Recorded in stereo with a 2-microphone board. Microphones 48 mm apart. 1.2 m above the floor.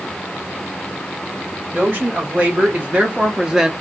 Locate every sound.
1.7 s a man speaking: 35° right (ahead or behind), 2 m; by 3.7 s 5° right (ahead or behind), 0.6 m